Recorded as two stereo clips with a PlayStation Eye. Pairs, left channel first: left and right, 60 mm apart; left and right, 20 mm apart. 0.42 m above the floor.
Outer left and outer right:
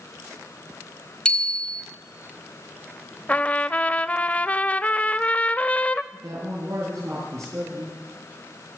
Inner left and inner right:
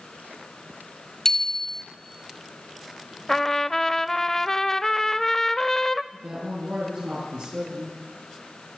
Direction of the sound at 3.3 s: 25° left (ahead or behind).